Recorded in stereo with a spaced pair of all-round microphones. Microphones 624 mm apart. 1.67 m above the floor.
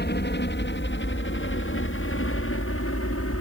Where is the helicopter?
15° left (ahead or behind); by 3.4 s 20° left (ahead or behind).